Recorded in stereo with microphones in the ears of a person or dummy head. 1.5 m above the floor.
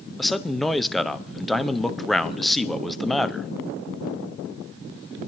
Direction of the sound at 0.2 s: Centre (ahead or behind).